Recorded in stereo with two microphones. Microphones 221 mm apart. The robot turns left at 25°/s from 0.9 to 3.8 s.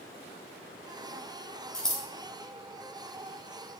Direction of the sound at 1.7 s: 5° left (ahead or behind).